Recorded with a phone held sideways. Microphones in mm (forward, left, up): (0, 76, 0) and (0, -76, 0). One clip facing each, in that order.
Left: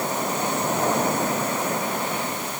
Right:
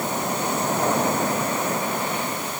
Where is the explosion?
No explosion in this recording.